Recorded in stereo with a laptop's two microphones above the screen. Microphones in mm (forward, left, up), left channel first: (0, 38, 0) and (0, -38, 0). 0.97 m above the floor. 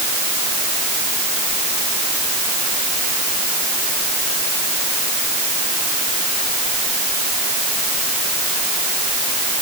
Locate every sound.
Only background noise.